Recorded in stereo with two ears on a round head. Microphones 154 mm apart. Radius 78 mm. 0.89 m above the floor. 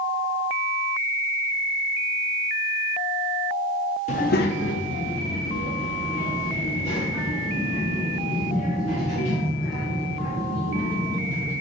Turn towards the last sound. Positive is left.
turn(degrees=25)  # may be behind; listen again after turning